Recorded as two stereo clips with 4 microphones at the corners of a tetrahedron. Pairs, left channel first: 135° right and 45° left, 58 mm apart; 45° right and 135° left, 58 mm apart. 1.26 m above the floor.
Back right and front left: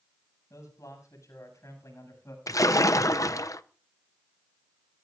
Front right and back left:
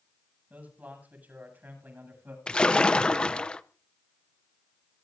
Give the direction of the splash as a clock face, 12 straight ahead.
4 o'clock.